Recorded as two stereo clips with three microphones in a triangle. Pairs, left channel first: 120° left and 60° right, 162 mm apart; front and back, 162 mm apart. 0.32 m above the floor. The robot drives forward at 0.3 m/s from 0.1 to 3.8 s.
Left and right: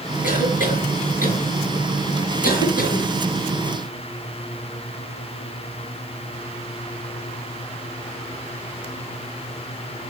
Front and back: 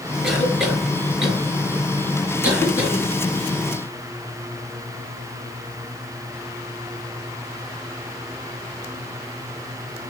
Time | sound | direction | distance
0.2 | a cough | 95° left | 6 m